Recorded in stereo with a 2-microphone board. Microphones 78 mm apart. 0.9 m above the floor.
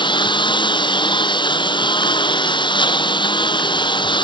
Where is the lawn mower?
75° left (ahead or behind).